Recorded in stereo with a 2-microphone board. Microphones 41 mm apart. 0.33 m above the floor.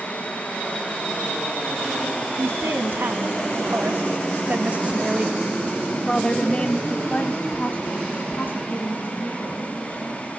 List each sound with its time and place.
2.4 s a woman speaking: 65° right (ahead or behind), 2.5 m; by 10.4 s 55° left (ahead or behind), 4 m